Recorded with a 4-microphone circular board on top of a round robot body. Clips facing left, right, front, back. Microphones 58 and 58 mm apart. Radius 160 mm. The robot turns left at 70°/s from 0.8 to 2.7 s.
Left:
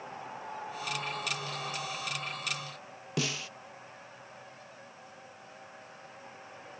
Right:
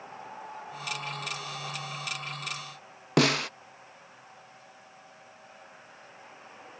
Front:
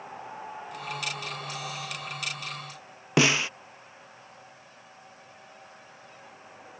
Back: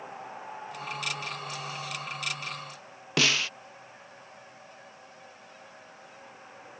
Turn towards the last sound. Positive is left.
turn(degrees=-65)